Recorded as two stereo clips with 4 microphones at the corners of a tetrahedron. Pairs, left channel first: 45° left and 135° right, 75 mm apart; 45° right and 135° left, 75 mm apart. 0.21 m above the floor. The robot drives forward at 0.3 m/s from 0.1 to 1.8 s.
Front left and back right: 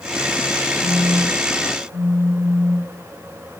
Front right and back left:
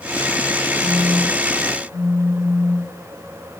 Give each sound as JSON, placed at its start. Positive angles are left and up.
{"t": 0.8, "sound": "a phone buzzing", "azimuth_deg": 65, "distance_m": 4.0}